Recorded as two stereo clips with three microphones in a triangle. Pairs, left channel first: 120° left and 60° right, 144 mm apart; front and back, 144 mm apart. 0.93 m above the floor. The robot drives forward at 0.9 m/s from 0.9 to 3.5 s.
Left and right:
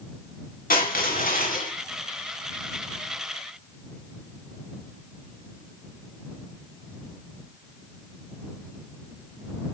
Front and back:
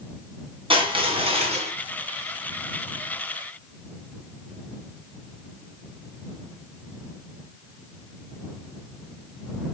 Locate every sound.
0.7 s crushing: 130° left, 3 m; by 1.7 s 135° left, 3.5 m